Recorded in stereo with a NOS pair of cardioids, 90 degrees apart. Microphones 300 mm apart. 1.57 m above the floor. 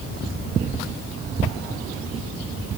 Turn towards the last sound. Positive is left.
No sound to turn to.